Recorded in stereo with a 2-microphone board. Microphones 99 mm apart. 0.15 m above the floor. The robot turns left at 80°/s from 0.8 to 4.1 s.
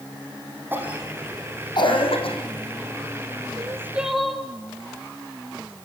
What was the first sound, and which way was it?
A cough, 20° right (ahead or behind).